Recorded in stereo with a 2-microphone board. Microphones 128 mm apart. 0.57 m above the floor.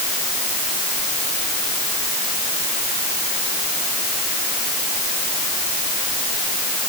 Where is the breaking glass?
No breaking glass in this recording.